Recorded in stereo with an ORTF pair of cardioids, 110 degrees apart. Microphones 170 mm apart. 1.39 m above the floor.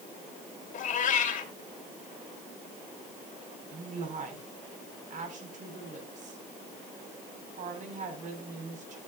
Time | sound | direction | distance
0.7 | a cat meowing | 50° left | 3 m
3.7 | a woman speaking | 45° right | 5.5 m